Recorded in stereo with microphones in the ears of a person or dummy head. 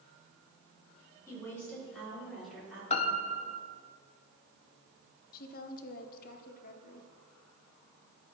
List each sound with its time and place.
1.3 s a woman speaking: 15° left (ahead or behind), 3.5 m; by 2.8 s 5° right (ahead or behind), 4.5 m
2.9 s a piano: 35° left (ahead or behind), 0.7 m
5.3 s a woman speaking: 50° left (ahead or behind), 0.9 m